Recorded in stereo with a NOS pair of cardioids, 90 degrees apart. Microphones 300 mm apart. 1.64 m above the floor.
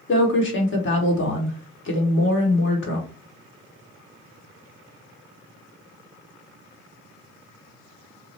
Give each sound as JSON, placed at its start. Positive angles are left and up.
{"t": 0.1, "sound": "a woman speaking", "azimuth_deg": 45, "distance_m": 1.3}